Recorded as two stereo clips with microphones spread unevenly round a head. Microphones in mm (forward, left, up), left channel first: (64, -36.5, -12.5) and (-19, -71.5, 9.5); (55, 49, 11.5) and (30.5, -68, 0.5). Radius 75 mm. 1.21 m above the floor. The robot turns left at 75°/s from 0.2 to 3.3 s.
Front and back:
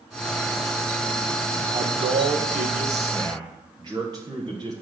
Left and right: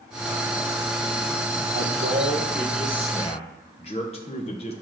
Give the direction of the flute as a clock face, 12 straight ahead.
No flute in this recording.